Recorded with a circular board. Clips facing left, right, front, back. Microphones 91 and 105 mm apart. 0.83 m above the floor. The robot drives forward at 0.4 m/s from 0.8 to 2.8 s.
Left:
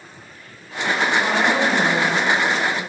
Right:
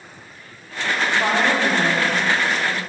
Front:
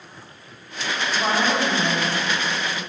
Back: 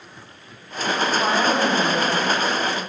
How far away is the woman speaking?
About 2 m.